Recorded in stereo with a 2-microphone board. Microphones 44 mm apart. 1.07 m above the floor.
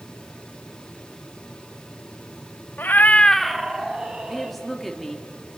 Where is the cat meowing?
50° left (ahead or behind), 0.7 m; by 4.6 s 20° right (ahead or behind), 2 m.